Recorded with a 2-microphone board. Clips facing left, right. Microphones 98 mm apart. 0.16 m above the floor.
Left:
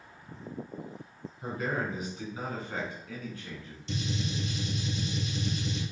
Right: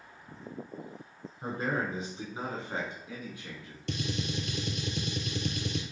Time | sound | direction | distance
1.4 | a man speaking | 35° right (ahead or behind) | 1.2 m
3.9 | a gunshot | 70° right (ahead or behind) | 0.8 m